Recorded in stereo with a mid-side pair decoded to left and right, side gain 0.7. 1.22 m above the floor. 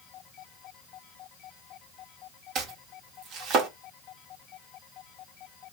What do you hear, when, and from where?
2.5 s chopping: 50° right, 1.0 m